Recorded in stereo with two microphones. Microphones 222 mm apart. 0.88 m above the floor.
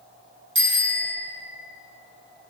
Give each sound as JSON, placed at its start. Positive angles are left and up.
{"t": 0.6, "sound": "a bicycle bell", "side_deg": -60, "distance_m": 6.5}